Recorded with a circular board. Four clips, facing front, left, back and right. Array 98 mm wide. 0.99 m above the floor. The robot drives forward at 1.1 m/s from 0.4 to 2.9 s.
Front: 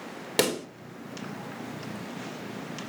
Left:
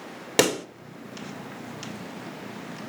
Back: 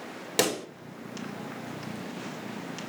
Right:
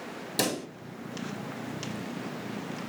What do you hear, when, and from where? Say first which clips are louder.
0.4 s a pop: left 8 dB, front 1 dB; 85° left, 1.2 m; by 0.7 s 95° left, 1.2 m